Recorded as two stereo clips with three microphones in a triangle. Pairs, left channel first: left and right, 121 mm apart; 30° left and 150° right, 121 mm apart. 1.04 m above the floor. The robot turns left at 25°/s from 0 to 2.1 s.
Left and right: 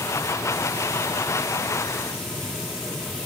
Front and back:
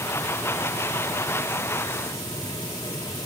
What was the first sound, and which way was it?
Only background noise.